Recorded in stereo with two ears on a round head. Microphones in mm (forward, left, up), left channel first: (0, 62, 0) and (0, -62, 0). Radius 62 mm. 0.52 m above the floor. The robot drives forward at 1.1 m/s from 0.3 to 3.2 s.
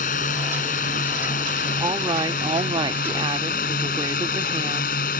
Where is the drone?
60° left (ahead or behind); by 5.2 s 65° left (ahead or behind).